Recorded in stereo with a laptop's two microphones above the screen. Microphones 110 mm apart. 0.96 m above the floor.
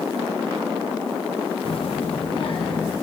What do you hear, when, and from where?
1.6 s a child speaking: 55° left (ahead or behind), 0.5 m; by 2.9 s 50° left (ahead or behind), 1.3 m